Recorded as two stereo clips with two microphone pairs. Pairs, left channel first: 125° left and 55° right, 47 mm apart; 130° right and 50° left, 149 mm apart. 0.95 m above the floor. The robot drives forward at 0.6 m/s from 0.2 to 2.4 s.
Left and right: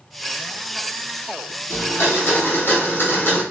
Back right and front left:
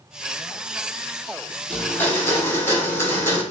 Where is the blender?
150° left, 0.9 m; by 3.4 s 160° left, 1.3 m.